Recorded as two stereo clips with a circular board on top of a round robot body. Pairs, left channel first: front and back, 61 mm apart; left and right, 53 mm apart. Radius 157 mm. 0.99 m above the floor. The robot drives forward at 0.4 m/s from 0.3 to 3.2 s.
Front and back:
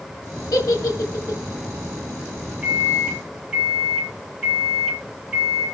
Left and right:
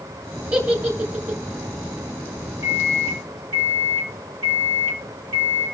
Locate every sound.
0.5 s a giggle: 25° right, 1.9 m; by 1.4 s 30° right, 1.6 m
2.6 s a microwave: 105° right, 3 m